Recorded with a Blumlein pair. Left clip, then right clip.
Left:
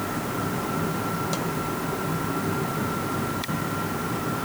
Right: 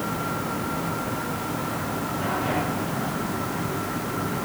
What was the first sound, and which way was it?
Only background noise.